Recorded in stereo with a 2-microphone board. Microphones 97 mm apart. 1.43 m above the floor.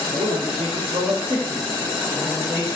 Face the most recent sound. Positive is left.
turn(degrees=-10)  # may be behind; listen again after turning